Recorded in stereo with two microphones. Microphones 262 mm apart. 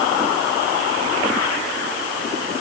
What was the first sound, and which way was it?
Only background noise.